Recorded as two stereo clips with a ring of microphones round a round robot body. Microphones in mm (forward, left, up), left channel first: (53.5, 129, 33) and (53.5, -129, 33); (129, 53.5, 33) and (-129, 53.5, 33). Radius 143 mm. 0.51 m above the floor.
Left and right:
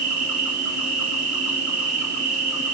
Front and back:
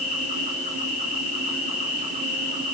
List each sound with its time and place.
0.0 s an insect: 65° right, 4 m